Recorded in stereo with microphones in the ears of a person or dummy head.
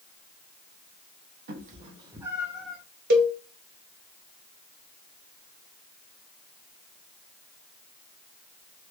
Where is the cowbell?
55° right (ahead or behind), 1.5 m.